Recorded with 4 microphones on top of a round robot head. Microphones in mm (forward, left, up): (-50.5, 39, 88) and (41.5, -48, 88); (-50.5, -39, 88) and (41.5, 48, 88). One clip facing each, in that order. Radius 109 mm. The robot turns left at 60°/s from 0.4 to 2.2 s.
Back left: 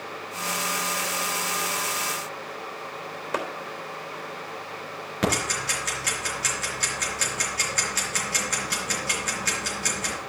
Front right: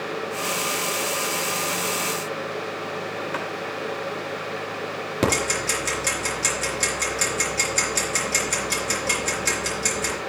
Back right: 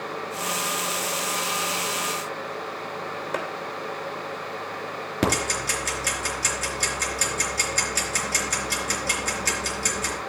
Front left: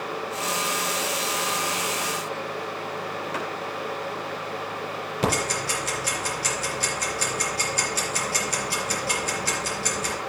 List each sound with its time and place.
3.3 s a clap: 170° right, 3 m
5.2 s ticking: 105° right, 3.5 m